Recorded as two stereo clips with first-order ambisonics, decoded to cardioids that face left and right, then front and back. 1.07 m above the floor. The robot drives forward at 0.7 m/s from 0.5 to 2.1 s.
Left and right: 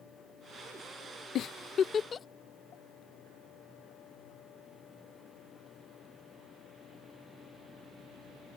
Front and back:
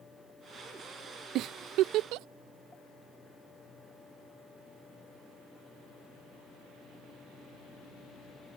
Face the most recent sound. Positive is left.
turn(degrees=155)